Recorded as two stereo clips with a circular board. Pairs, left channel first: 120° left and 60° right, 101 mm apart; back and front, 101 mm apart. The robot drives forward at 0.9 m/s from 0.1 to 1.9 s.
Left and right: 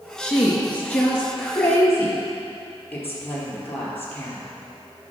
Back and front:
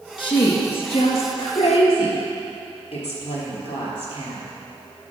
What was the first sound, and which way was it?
A woman speaking, 155° right.